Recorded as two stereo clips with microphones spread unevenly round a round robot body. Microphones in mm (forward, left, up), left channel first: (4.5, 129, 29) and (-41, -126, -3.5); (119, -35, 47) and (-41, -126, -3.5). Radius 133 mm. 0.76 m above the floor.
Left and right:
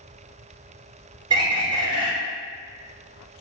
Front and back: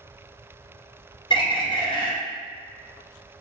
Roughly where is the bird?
Ahead right.